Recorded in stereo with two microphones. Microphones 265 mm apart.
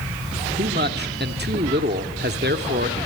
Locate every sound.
0.6 s a man speaking: 40° right (ahead or behind), 1.4 m